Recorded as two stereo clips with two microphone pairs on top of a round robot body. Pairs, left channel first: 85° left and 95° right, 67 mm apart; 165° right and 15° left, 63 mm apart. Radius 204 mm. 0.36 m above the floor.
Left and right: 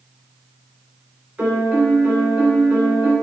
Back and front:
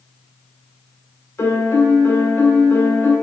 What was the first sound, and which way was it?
A piano, 165° right.